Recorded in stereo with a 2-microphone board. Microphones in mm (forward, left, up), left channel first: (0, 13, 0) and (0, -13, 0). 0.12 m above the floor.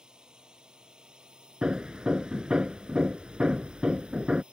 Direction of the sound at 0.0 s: 35° right (ahead or behind).